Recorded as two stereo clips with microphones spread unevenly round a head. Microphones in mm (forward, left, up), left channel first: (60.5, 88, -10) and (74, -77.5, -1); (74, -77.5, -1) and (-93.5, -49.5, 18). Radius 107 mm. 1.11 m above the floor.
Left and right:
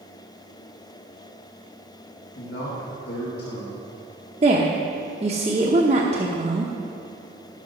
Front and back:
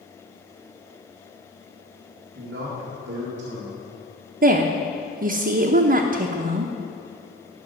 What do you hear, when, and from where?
2.4 s a man speaking: 135° left, 1.8 m
4.4 s a woman speaking: 150° right, 0.8 m